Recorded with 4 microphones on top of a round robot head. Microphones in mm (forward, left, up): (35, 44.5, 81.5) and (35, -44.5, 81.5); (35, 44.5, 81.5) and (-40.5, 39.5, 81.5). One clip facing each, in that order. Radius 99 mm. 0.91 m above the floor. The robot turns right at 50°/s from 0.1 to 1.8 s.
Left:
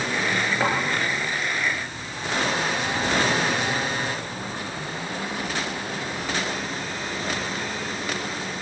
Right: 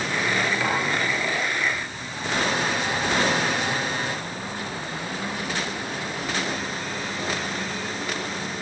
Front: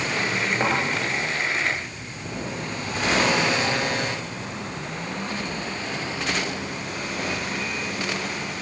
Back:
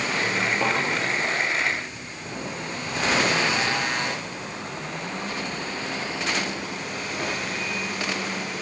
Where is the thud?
35° left, 8.5 m; by 0.7 s 40° left, 8.5 m.